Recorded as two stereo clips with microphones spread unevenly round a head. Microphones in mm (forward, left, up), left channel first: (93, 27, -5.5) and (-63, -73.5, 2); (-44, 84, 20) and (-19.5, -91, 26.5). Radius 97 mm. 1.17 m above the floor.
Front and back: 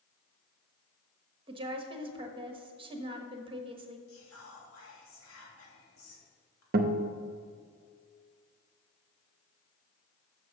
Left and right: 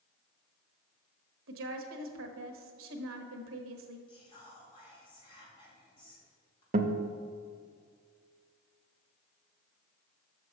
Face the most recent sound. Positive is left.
turn(degrees=-120)